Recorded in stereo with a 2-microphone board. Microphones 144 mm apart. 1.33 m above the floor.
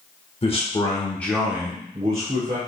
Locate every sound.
0.4 s a man speaking: 40° left (ahead or behind), 1.1 m; by 2.6 s 55° right (ahead or behind), 1.1 m